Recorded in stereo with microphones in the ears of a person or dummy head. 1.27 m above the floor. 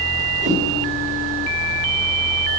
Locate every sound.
0.4 s a whoosh: 40° right (ahead or behind), 5 m